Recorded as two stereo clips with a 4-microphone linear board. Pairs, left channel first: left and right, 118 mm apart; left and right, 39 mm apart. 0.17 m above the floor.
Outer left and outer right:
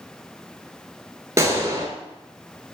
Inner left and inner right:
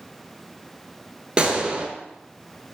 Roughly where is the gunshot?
Right.